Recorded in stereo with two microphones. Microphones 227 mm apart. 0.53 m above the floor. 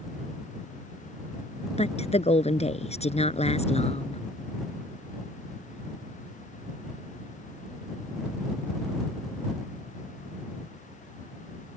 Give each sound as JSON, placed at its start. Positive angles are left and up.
{"t": 1.8, "sound": "a woman speaking", "side_deg": 25}